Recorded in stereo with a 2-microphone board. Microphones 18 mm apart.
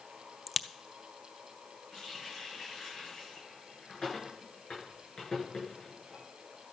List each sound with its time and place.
0.5 s a crack: 5° left (ahead or behind), 0.8 m
1.9 s a running tap: 55° left (ahead or behind), 9.5 m